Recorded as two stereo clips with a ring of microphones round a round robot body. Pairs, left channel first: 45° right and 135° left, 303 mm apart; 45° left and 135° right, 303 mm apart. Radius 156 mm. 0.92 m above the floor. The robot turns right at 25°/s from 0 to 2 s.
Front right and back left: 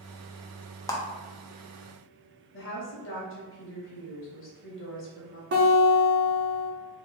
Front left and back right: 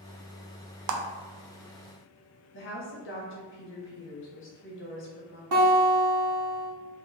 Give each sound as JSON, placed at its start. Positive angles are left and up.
{"t": 0.9, "sound": "a clap", "azimuth_deg": -125, "distance_m": 0.5}
{"t": 2.5, "sound": "a woman speaking", "azimuth_deg": 0, "distance_m": 1.0}
{"t": 5.5, "sound": "a guitar", "azimuth_deg": -165, "distance_m": 1.1}